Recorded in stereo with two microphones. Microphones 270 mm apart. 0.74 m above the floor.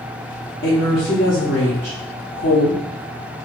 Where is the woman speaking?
45° left (ahead or behind), 1.6 m.